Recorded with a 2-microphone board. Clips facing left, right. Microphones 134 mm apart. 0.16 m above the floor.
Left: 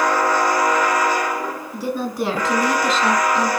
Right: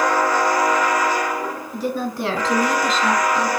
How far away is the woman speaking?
About 2.5 m.